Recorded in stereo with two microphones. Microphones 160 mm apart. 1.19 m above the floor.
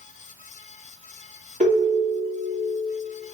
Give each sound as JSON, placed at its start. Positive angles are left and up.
{"t": 1.6, "sound": "a ringtone", "side_deg": -45, "distance_m": 0.9}